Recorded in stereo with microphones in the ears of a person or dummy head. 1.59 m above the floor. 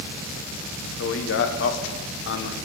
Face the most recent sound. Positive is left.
turn(degrees=65)  # may be behind; listen again after turning